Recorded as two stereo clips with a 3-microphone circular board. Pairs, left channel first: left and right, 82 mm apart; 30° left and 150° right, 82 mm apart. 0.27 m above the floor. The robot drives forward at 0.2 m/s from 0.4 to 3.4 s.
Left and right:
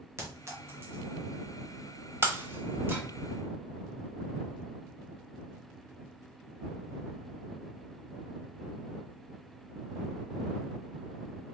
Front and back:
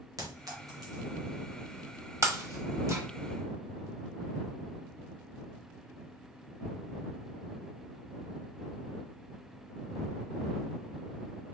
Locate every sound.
0.2 s a clink: 135° right, 1.5 m; by 1.2 s 140° right, 1.6 m
2.2 s breaking glass: 130° right, 0.9 m; by 3.0 s 140° right, 1.0 m